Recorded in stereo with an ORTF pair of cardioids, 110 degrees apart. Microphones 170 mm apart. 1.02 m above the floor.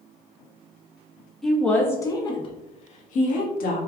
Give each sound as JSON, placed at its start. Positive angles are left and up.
{"t": 1.4, "sound": "a woman speaking", "azimuth_deg": 0, "distance_m": 1.5}